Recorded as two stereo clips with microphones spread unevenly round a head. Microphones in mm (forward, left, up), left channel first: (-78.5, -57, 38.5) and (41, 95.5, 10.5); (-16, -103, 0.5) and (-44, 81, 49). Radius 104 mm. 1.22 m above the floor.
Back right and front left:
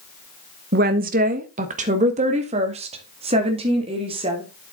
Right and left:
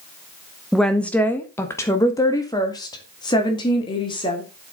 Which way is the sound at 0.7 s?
5° left.